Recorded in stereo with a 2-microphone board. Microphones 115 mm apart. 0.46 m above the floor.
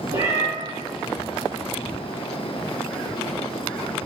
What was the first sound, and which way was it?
A cat meowing, 80° right.